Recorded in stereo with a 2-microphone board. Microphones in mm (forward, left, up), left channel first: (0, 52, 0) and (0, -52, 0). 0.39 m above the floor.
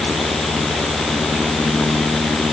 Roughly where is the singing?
I don't hear singing.